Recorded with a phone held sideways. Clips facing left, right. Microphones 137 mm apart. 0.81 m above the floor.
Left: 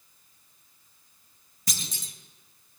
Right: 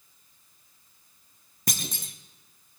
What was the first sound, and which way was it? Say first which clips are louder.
A clunk: right 5 dB; 55° right (ahead or behind).